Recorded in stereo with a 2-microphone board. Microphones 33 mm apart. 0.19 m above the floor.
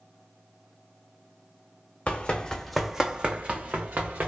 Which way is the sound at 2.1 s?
40° left (ahead or behind).